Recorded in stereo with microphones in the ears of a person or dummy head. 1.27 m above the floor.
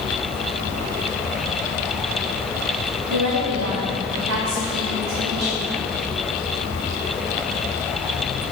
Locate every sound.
3.1 s a woman speaking: 70° right (ahead or behind), 1.3 m; by 5.7 s 50° right (ahead or behind), 2.5 m